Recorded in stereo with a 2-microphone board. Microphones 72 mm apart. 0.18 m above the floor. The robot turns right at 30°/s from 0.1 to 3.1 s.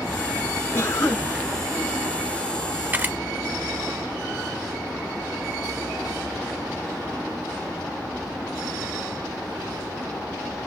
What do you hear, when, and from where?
0.7 s a cough: 25° left (ahead or behind), 2.5 m; by 1.3 s 35° left (ahead or behind), 2.5 m
2.9 s a camera shutter: 25° right (ahead or behind), 0.9 m